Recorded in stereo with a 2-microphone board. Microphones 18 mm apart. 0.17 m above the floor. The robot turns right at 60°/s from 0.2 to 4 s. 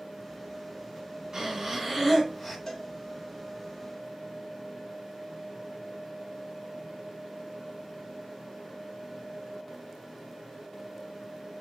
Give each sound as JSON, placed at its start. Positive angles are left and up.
{"t": 1.3, "sound": "breathing", "azimuth_deg": -50, "distance_m": 1.8}
{"t": 2.7, "sound": "a cowbell", "side_deg": 25, "distance_m": 0.9}